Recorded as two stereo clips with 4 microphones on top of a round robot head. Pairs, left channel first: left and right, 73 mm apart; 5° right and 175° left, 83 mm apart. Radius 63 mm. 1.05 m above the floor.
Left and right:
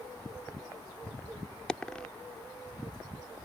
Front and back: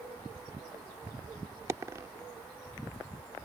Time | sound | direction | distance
1.7 | a dropped coin | 160° left | ?